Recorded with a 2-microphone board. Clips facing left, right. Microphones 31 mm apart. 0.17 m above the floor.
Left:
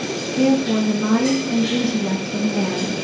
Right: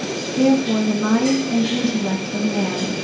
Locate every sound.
0.4 s a woman speaking: centre (ahead or behind), 1.5 m